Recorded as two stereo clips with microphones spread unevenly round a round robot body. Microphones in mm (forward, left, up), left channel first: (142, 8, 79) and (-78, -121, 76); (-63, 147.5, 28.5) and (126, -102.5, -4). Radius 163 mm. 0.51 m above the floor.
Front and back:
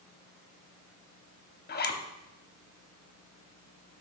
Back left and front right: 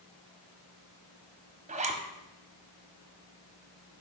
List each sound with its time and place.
1.7 s a zipper: straight ahead, 0.8 m